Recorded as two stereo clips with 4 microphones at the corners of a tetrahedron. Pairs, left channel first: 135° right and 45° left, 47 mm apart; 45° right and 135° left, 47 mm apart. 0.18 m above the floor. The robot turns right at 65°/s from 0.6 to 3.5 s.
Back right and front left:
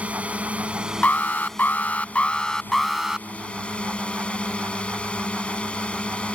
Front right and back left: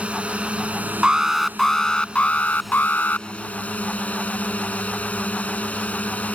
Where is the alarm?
165° right; by 3.3 s 20° right.